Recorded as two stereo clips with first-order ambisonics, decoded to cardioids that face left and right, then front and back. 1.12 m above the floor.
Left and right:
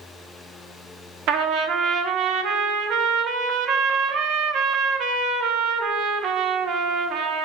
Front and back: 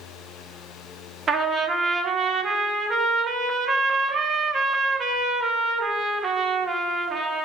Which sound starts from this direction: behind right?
A trumpet, at 1.3 s.